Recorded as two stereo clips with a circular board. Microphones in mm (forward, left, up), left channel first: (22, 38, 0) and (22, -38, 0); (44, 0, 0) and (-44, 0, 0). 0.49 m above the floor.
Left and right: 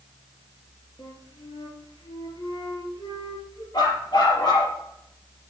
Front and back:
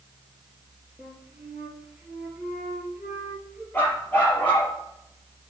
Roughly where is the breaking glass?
I don't hear breaking glass.